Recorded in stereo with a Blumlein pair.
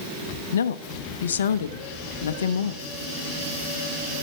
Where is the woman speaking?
65° left, 0.9 m.